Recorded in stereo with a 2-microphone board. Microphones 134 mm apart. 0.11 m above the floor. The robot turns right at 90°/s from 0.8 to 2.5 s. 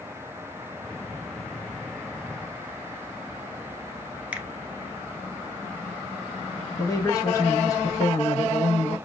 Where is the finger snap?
10° right (ahead or behind), 1.1 m.